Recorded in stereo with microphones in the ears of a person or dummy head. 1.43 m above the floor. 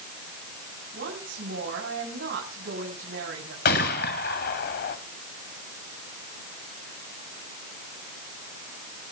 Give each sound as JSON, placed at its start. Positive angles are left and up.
{"t": 0.9, "sound": "a woman speaking", "side_deg": -60, "distance_m": 8.5}
{"t": 3.6, "sound": "a gunshot", "side_deg": 50, "distance_m": 1.9}